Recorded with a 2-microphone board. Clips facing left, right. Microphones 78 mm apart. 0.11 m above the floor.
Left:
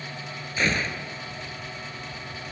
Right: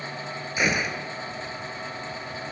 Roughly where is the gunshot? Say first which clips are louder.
Right 1 dB; centre.